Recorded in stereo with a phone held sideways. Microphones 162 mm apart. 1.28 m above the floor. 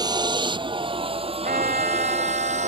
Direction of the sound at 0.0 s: 25° right (ahead or behind).